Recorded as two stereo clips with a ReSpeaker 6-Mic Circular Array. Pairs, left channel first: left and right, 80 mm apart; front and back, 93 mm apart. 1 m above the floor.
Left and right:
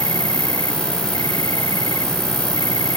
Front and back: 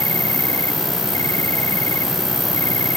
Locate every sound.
0.0 s an insect: 55° left